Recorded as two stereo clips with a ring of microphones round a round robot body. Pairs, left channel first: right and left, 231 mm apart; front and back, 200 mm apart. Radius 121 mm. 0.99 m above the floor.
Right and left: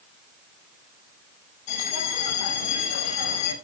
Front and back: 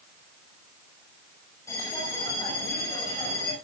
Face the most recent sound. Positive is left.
turn(degrees=-80)